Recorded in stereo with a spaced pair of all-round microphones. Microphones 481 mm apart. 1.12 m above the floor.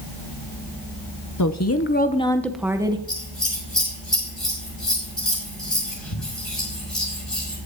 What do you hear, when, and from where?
1.4 s a woman speaking: 45° left (ahead or behind), 0.7 m; by 3.0 s 10° right (ahead or behind), 1.0 m
3.1 s scissors: 75° left (ahead or behind), 6.5 m